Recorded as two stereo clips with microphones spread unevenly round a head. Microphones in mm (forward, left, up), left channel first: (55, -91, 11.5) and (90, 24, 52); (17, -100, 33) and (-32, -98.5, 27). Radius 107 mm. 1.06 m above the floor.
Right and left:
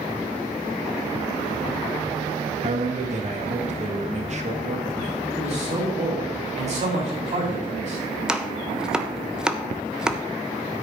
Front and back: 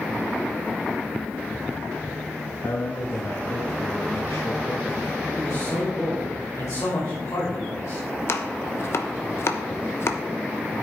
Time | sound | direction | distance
2.6 | a man speaking | 40° left | 1.9 m
5.3 | a man speaking | 45° left | 4.5 m
8.3 | chopping | 20° right | 1.0 m